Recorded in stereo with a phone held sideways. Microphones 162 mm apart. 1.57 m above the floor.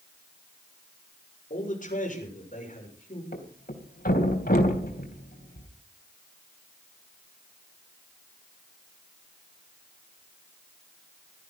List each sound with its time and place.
1.5 s a man speaking: 50° left (ahead or behind), 6.5 m
3.3 s a thud: 60° left (ahead or behind), 3.5 m